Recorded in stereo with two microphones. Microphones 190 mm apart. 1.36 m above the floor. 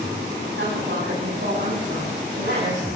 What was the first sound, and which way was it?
A woman speaking, 85° right.